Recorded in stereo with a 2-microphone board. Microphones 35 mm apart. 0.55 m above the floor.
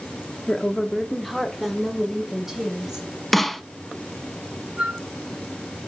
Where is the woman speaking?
15° left (ahead or behind), 1.2 m; by 3.1 s 10° right (ahead or behind), 4 m.